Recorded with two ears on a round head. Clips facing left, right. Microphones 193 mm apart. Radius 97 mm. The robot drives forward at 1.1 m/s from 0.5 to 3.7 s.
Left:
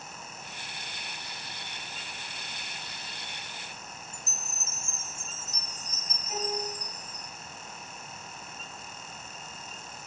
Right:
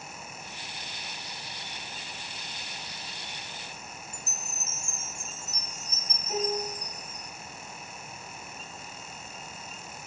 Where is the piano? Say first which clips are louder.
Right 4 dB; 40° right (ahead or behind), 7 m.